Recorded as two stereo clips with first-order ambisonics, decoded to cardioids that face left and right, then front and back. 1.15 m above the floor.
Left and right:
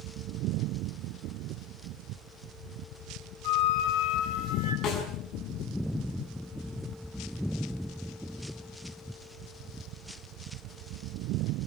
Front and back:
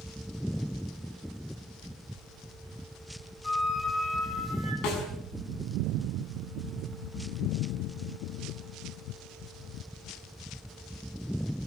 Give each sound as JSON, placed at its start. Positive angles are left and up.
{"t": 3.4, "sound": "a flute", "azimuth_deg": 70, "distance_m": 5.0}
{"t": 4.8, "sound": "a snare drum", "azimuth_deg": 35, "distance_m": 5.0}